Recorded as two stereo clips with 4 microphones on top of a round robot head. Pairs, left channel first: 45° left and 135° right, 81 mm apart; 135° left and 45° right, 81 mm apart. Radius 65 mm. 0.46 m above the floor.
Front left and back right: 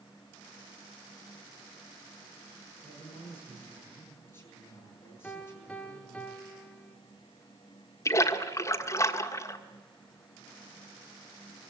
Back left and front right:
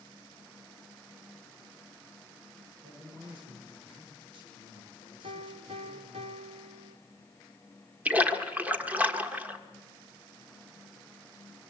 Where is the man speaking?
20° right, 9 m.